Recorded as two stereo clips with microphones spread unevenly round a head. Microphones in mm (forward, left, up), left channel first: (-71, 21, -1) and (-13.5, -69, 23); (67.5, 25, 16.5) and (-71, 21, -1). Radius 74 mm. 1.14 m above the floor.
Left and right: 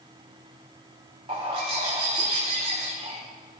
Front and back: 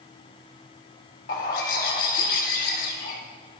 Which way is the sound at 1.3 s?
15° right.